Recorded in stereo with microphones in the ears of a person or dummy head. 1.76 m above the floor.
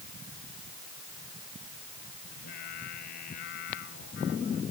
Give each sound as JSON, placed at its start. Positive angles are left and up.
{"t": 2.3, "sound": "singing", "side_deg": 60}